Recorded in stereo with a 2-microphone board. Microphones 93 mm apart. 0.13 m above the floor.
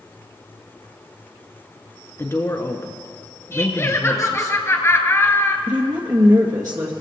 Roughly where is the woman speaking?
Right.